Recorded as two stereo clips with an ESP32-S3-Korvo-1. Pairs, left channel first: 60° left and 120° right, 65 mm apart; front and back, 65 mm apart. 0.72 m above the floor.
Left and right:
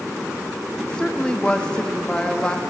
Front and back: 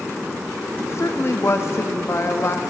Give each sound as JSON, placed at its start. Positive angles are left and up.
{"t": 0.8, "sound": "a woman speaking", "azimuth_deg": -10, "distance_m": 0.7}